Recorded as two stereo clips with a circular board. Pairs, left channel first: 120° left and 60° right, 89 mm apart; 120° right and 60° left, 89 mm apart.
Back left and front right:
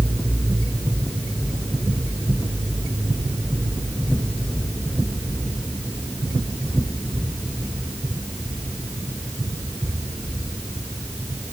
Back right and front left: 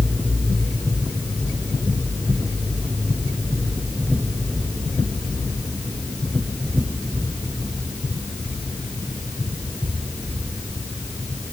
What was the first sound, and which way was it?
Only background noise.